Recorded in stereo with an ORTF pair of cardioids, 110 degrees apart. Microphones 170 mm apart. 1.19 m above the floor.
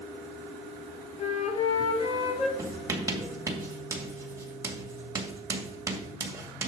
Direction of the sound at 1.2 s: 35° left.